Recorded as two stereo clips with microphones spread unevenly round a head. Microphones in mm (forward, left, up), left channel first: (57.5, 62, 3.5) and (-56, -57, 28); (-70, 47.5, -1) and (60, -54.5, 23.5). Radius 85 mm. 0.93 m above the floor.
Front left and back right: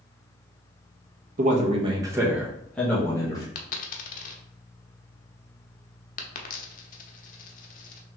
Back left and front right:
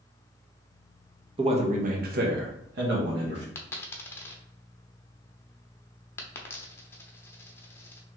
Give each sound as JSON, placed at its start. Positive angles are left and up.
{"t": 1.4, "sound": "a man speaking", "azimuth_deg": -95, "distance_m": 0.9}
{"t": 3.5, "sound": "a dropped coin", "azimuth_deg": 60, "distance_m": 0.6}